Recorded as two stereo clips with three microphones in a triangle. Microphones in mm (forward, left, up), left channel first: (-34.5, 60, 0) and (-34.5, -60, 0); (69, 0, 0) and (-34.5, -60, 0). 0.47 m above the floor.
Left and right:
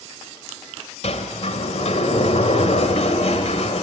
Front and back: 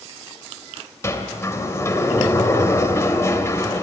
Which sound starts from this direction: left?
A sliding door, at 1.0 s.